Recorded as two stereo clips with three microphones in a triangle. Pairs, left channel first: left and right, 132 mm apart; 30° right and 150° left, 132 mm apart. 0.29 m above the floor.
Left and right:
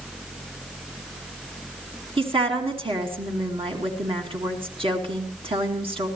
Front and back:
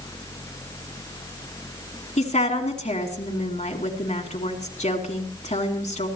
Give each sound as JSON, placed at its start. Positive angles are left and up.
{"t": 2.2, "sound": "a woman speaking", "azimuth_deg": -45, "distance_m": 2.5}